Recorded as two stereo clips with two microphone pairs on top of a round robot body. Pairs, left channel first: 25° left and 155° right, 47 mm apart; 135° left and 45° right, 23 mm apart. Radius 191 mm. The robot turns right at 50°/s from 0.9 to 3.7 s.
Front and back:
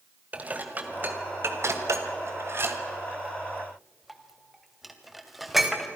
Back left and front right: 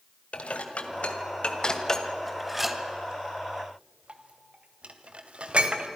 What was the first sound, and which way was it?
Dishes clattering, 155° left.